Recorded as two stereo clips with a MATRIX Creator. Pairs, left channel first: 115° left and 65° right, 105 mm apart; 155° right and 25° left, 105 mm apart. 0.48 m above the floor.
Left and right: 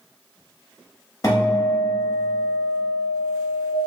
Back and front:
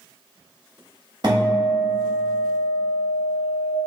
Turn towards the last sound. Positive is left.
turn(degrees=55)